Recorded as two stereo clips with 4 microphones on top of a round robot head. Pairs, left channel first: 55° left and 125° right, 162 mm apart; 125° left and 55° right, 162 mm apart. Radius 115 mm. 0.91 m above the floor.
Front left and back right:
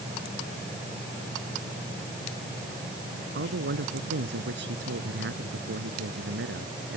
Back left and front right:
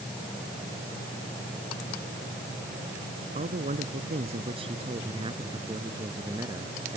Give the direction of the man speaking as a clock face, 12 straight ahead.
3 o'clock.